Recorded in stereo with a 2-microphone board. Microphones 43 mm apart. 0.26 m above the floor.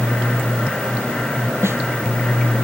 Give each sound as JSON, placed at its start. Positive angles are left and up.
{"t": 1.6, "sound": "a snare drum", "side_deg": -80}